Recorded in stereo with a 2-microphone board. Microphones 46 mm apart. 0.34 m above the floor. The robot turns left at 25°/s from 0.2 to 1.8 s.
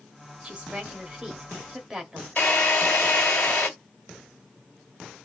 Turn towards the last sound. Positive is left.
turn(degrees=45)  # may be behind; listen again after turning